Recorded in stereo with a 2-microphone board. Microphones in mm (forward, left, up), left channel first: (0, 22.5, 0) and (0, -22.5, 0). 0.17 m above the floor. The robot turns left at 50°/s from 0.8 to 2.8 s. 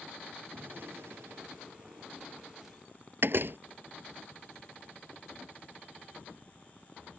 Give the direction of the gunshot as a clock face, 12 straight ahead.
2 o'clock.